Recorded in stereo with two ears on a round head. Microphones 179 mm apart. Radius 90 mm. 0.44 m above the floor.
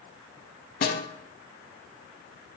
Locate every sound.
0.8 s a snare drum: 50° left (ahead or behind), 0.6 m